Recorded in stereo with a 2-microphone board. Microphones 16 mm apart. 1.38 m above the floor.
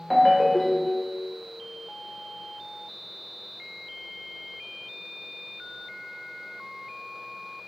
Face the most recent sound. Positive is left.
turn(degrees=15)  # may be behind; listen again after turning